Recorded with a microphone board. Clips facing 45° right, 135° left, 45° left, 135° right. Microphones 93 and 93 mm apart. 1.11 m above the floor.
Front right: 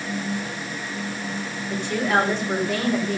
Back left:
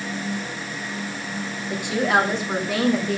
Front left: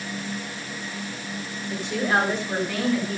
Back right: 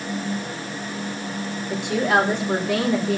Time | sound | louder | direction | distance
1.7 | a woman speaking | back left 1 dB, back right 3 dB | 145° right | 3.5 m